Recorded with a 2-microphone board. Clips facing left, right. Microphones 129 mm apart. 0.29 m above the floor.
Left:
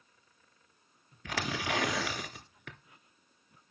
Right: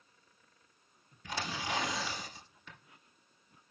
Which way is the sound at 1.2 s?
80° left.